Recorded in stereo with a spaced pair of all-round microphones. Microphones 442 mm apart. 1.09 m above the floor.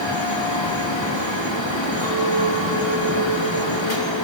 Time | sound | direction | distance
0.0 | a fan | 70° left (ahead or behind) | 3 m
2.0 | a clink | 10° left (ahead or behind) | 8 m